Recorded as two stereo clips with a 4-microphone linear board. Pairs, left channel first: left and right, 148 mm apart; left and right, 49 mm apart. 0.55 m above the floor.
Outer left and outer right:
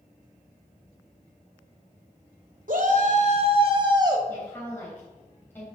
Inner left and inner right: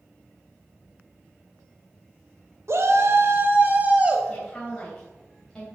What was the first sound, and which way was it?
A shout, 65° right (ahead or behind).